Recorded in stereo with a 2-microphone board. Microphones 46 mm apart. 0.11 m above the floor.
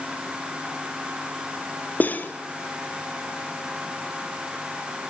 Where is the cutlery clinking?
40° left (ahead or behind), 1.6 m.